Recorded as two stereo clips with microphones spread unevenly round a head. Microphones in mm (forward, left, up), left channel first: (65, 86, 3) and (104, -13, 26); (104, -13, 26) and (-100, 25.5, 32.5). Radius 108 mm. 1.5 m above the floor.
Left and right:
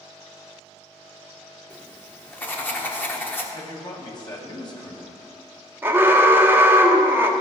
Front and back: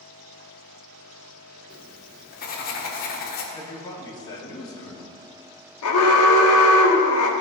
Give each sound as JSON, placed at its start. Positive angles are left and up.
{"t": 1.7, "sound": "writing", "azimuth_deg": 35, "distance_m": 1.4}
{"t": 3.5, "sound": "a man speaking", "azimuth_deg": 60, "distance_m": 1.9}
{"t": 5.8, "sound": "an alarm", "azimuth_deg": -5, "distance_m": 1.0}